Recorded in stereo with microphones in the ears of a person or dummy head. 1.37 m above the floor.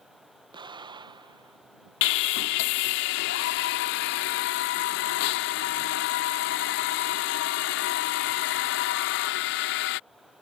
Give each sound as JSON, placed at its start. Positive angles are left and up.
{"t": 0.5, "sound": "an explosion", "side_deg": -20}
{"t": 2.0, "sound": "sawing", "side_deg": 55}